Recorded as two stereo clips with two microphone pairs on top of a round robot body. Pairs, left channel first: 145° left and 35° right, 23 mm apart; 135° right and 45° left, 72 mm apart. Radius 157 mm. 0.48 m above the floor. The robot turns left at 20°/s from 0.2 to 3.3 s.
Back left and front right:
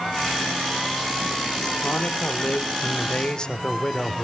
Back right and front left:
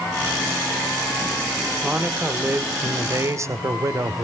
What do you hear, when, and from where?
1.8 s a man speaking: 115° left, 1.9 m; by 4.2 s 85° left, 1.9 m